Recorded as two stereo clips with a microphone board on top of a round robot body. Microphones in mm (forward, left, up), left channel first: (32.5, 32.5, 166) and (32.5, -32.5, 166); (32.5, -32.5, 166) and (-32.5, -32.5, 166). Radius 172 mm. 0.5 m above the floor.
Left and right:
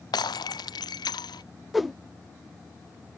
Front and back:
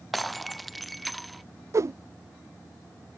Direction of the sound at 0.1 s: 90° left.